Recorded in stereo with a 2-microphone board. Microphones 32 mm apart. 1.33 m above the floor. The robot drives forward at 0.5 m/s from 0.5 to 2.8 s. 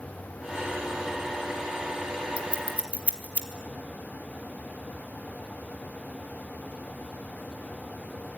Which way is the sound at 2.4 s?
40° right (ahead or behind).